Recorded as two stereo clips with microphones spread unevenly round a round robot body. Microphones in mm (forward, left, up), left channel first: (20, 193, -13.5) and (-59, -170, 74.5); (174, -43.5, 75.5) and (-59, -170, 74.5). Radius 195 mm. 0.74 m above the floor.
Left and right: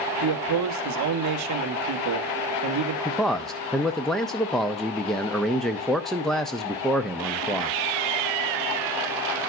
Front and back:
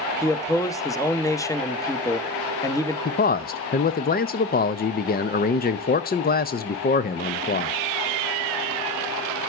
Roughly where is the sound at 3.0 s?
Ahead.